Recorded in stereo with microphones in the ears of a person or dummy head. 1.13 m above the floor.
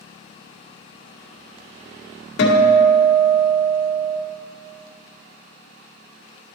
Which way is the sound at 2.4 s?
65° left (ahead or behind).